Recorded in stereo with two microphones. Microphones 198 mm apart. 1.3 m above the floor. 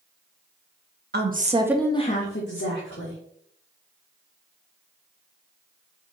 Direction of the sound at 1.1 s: 55° right (ahead or behind).